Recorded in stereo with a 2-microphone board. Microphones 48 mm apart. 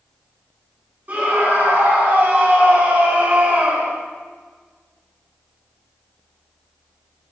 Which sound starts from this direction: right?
A scream, at 1.1 s.